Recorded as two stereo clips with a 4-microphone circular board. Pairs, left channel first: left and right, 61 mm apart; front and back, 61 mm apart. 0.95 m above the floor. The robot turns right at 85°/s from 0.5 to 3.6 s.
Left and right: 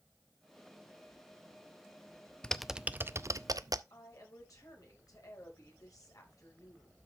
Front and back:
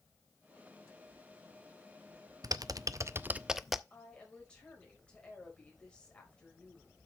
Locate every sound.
2.4 s typing on a keyboard: 165° left, 0.5 m; by 3.8 s 95° right, 0.5 m
3.9 s a woman speaking: 70° left, 4.5 m